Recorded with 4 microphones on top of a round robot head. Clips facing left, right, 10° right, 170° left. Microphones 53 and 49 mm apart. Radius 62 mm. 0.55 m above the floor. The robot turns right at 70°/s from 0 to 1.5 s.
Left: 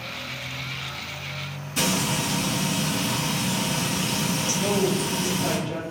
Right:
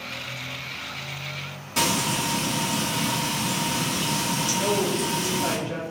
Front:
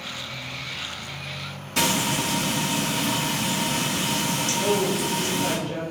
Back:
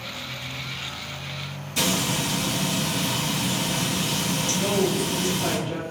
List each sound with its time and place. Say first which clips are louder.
1.8 s frying: right 1 dB, front 2 dB; 55° right, 1.1 m
4.6 s a woman speaking: left 1 dB, even; 145° right, 0.8 m